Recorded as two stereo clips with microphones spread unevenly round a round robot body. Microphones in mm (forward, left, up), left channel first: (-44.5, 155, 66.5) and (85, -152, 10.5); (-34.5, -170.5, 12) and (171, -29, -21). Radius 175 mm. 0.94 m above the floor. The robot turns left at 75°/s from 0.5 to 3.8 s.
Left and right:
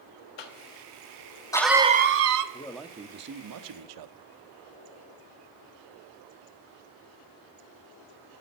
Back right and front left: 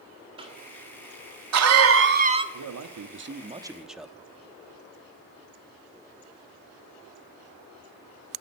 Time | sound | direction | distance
0.4 | a cough | 110° left | 1.6 m
2.5 | a man speaking | 40° left | 1.3 m